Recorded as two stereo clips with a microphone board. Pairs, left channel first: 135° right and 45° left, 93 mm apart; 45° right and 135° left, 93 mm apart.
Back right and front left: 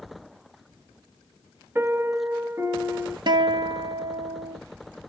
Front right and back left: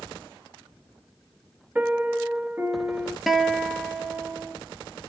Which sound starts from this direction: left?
A piano, at 1.8 s.